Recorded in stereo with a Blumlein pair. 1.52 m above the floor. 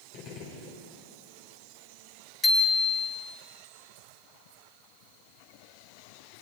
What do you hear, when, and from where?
0.1 s a gunshot: 40° left, 5 m
2.4 s a bicycle bell: 15° left, 4 m